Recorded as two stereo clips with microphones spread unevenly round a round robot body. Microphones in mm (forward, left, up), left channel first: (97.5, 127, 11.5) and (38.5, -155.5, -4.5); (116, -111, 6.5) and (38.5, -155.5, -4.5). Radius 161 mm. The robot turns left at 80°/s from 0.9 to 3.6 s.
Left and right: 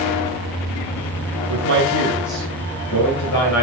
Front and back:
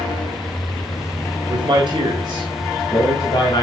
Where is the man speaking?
125° right, 1.7 m; by 3.6 s 65° left, 1.7 m.